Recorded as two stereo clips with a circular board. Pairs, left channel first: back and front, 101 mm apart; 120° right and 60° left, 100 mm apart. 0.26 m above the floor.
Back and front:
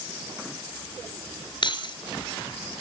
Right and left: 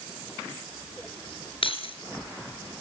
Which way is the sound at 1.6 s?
145° right.